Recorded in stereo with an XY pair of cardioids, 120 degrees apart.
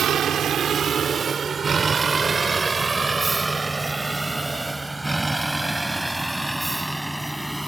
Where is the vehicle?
55° right; by 7.7 s 5° right.